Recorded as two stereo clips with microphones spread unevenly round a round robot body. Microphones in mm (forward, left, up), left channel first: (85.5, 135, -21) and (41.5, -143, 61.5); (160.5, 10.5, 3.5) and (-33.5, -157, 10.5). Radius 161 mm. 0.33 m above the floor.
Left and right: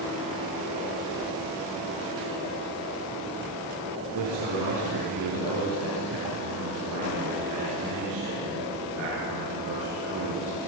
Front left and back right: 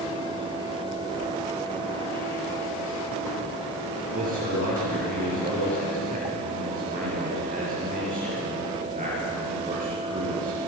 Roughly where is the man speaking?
Right.